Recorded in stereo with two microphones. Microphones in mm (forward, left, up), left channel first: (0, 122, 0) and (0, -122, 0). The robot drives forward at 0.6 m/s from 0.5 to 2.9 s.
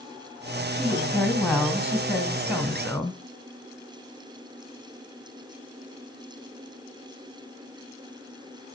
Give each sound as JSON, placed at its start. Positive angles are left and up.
{"t": 0.8, "sound": "a woman speaking", "side_deg": 10, "distance_m": 2.0}